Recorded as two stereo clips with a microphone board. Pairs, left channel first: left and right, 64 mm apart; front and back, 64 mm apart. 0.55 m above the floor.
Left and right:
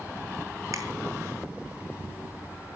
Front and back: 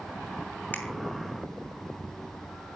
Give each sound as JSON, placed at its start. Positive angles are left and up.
{"t": 0.7, "sound": "a finger snap", "azimuth_deg": -60, "distance_m": 5.0}